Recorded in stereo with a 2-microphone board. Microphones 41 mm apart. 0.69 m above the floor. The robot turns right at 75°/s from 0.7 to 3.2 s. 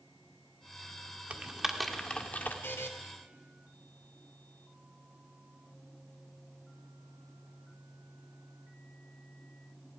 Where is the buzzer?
60° left (ahead or behind), 2 m; by 2.9 s 75° left (ahead or behind), 2 m.